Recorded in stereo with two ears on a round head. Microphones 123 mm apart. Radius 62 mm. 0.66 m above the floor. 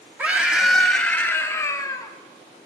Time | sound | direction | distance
0.2 | a scream | 10° right (ahead or behind) | 1.1 m